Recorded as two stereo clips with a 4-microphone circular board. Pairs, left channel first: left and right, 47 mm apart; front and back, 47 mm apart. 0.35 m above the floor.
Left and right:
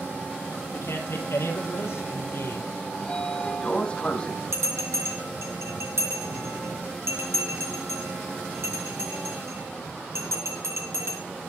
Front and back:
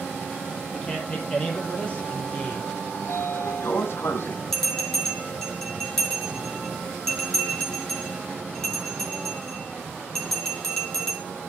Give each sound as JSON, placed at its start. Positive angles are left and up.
{"t": 0.7, "sound": "a man speaking", "azimuth_deg": 70, "distance_m": 9.0}
{"t": 2.9, "sound": "a sliding door", "azimuth_deg": 25, "distance_m": 1.7}
{"t": 4.5, "sound": "a bell", "azimuth_deg": -80, "distance_m": 6.5}